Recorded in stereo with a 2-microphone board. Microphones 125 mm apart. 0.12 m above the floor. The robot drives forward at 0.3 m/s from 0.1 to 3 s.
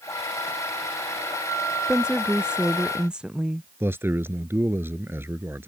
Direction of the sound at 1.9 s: 5° right (ahead or behind).